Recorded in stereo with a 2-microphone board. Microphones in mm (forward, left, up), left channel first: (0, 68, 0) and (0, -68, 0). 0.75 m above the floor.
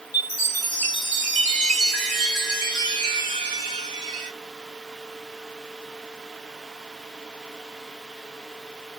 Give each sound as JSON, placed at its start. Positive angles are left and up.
{"t": 0.1, "sound": "a chime", "side_deg": -80, "distance_m": 3.0}